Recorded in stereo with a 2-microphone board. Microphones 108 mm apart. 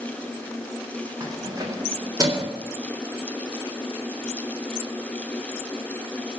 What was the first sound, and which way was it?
Keys jangling, 40° right (ahead or behind).